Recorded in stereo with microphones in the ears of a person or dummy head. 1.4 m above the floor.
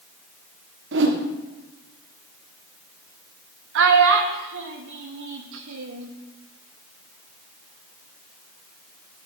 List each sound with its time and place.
0.9 s a whoosh: 55° right (ahead or behind), 1.1 m
3.8 s a child speaking: 65° right (ahead or behind), 1.6 m